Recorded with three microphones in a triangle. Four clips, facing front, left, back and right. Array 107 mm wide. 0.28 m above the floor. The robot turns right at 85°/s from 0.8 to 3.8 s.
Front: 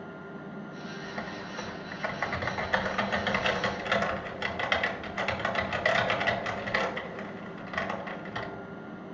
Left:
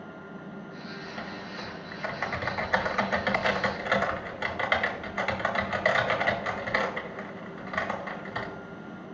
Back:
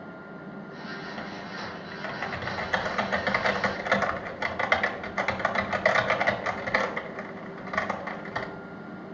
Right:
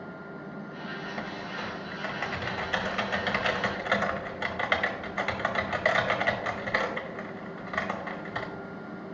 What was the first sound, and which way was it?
Typing on a keyboard, 55° right.